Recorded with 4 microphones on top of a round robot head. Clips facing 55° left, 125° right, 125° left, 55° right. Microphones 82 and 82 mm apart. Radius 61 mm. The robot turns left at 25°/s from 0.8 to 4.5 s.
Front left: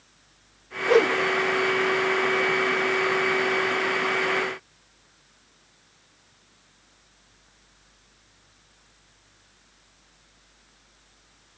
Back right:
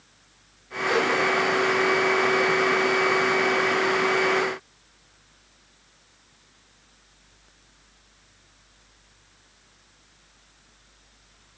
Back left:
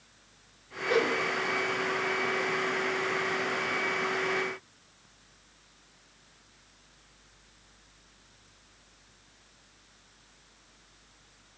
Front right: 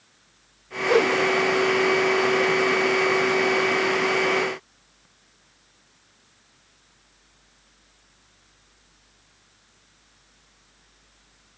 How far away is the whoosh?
About 0.6 m.